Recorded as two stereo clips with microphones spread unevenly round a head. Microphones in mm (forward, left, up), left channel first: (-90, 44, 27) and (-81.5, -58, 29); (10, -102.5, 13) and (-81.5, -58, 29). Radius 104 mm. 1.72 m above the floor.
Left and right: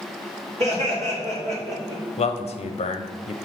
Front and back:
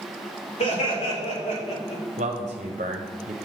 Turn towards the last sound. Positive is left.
turn(degrees=110)